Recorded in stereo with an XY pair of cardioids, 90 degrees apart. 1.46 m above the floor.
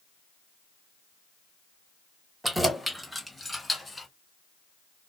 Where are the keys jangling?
10° right, 1.3 m; by 4.1 s 10° left, 1.8 m.